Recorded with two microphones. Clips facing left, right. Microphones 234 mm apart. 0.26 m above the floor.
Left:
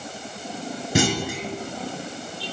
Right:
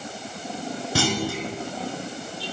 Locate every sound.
0.9 s a clunk: 20° left (ahead or behind), 1.5 m